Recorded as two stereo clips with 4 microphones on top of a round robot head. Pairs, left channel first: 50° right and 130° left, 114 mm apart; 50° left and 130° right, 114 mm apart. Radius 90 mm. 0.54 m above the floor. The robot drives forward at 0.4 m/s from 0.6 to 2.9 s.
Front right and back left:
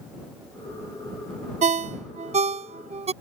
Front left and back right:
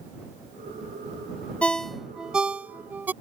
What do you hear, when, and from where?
1.6 s a ringtone: 130° left; by 3.1 s 155° left